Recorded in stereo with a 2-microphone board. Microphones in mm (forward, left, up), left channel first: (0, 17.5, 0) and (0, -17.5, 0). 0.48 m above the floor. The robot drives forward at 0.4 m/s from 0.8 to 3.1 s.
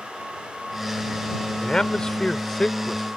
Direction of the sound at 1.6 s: 20° left (ahead or behind).